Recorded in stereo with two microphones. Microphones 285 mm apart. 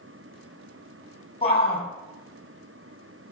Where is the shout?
20° left (ahead or behind), 4.5 m.